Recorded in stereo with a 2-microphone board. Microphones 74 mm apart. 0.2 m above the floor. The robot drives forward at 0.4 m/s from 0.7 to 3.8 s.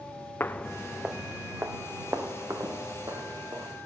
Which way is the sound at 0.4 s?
25° left (ahead or behind).